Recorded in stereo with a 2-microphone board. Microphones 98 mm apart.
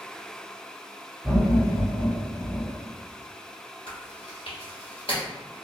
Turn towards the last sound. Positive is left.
turn(degrees=65)  # may be behind; listen again after turning